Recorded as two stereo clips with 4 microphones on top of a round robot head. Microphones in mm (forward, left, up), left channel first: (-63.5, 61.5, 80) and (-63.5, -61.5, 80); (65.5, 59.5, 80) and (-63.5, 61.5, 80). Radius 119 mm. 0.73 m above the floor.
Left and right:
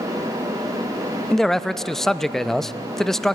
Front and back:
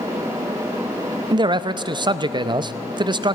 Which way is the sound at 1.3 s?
175° left.